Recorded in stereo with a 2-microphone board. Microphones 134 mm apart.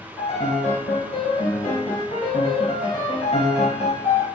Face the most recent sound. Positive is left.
turn(degrees=45)  # may be behind; listen again after turning